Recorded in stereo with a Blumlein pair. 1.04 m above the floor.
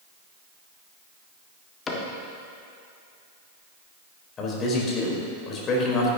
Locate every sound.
1.9 s a cupboard door: 15° left, 1.7 m
4.4 s a man speaking: 25° left, 3.5 m